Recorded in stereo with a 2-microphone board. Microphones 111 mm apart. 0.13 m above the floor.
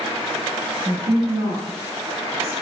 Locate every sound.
0.8 s a woman speaking: 20° right (ahead or behind), 1.8 m